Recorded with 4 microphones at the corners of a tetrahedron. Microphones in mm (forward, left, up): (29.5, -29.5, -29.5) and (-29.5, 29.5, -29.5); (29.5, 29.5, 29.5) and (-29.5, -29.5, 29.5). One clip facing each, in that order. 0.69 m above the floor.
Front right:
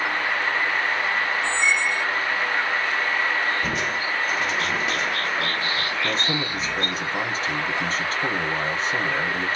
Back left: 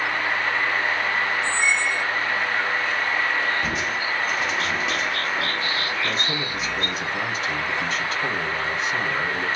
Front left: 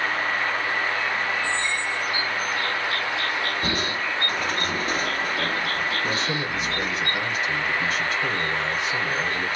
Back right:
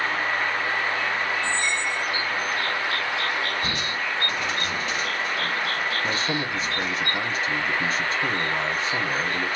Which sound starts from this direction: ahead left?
Crushing, at 3.6 s.